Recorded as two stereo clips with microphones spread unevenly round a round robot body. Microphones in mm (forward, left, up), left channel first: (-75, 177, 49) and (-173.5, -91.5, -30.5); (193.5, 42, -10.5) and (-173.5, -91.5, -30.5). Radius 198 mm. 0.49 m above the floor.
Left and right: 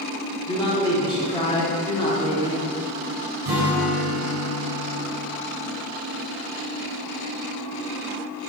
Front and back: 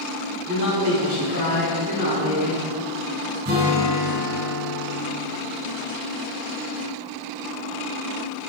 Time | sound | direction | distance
0.5 | a man speaking | 160° left | 0.8 m
3.5 | a guitar | 95° right | 1.9 m